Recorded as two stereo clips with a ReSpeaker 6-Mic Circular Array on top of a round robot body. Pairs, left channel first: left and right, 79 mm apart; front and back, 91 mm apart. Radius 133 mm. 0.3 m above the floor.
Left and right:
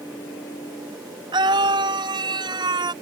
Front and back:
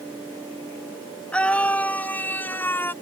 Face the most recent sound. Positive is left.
turn(degrees=-65)